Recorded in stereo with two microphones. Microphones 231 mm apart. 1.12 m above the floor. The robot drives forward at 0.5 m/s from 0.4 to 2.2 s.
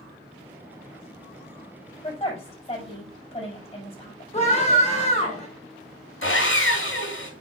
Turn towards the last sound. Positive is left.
turn(degrees=65)  # may be behind; listen again after turning